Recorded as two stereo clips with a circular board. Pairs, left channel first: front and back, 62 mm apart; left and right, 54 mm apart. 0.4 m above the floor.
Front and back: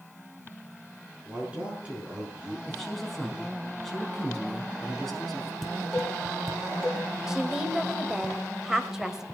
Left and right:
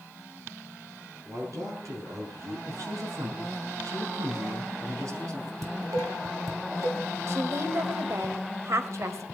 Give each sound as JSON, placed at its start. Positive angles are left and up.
{"t": 1.2, "sound": "a man speaking", "azimuth_deg": -110, "distance_m": 7.0}
{"t": 2.7, "sound": "a man speaking", "azimuth_deg": -85, "distance_m": 4.5}
{"t": 5.6, "sound": "dishes clattering", "azimuth_deg": -85, "distance_m": 1.9}
{"t": 7.3, "sound": "a woman speaking", "azimuth_deg": -100, "distance_m": 1.4}